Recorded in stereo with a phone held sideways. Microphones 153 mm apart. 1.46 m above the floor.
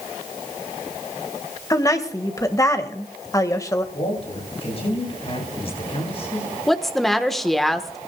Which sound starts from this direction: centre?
A woman speaking, at 6.7 s.